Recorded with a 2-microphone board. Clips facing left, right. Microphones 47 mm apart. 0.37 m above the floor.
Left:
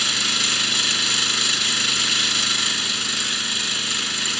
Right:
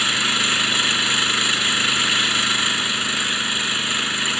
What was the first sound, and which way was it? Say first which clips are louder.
An engine running: right 3 dB; 20° right (ahead or behind).